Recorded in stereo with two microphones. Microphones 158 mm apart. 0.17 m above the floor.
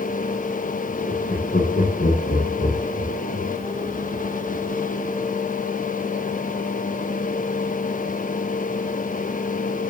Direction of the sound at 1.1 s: 80° left.